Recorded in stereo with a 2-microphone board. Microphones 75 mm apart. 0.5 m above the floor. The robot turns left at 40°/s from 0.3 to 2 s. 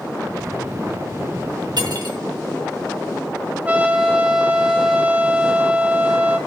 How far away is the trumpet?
About 1.9 m.